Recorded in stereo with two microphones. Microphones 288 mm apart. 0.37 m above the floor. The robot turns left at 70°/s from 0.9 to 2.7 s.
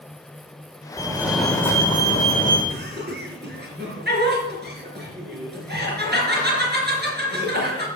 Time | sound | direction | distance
1.0 | a fire alarm | 15° right (ahead or behind) | 2.0 m
2.7 | laughter | 35° right (ahead or behind) | 5.5 m